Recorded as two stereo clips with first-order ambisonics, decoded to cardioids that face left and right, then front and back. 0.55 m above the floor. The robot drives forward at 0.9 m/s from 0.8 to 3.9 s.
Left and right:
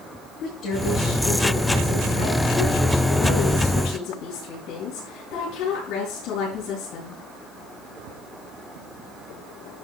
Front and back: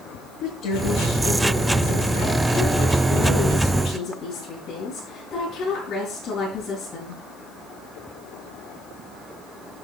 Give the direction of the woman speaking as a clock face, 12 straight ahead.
11 o'clock.